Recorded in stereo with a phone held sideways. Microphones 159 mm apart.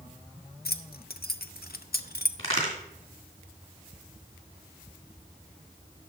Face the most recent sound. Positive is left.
turn(degrees=40)  # may be behind; listen again after turning